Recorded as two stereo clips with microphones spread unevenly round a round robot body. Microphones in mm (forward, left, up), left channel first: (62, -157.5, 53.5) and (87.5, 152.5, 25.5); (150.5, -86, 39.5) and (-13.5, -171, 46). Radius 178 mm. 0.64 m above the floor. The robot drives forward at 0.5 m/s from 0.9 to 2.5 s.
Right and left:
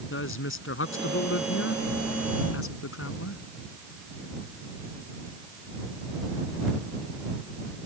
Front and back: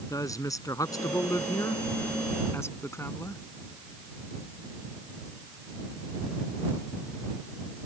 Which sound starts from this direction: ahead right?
A woman speaking, at 0.1 s.